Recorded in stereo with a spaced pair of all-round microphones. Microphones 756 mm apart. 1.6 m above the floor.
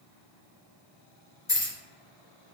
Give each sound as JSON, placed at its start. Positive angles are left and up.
{"t": 1.5, "sound": "keys jangling", "side_deg": 25, "distance_m": 1.1}